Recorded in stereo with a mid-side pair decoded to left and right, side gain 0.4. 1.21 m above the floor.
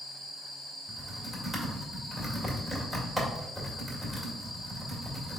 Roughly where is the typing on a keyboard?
Ahead.